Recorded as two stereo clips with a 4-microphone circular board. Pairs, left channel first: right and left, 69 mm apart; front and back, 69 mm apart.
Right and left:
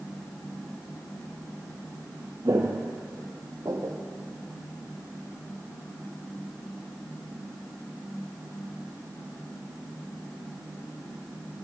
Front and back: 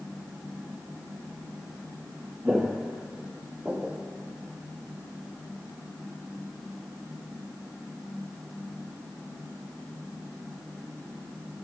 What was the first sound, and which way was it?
Footsteps, 105° left.